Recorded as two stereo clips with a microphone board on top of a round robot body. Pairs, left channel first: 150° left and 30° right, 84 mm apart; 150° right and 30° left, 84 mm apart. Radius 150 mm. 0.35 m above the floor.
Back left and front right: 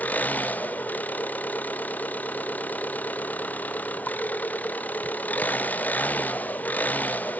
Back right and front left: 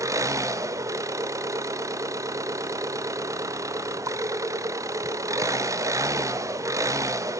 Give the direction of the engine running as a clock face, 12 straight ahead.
9 o'clock.